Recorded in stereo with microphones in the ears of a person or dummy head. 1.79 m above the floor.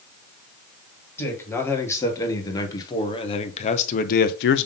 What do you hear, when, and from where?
1.2 s a man speaking: 10° left (ahead or behind), 2 m; by 4.7 s 65° left (ahead or behind), 0.6 m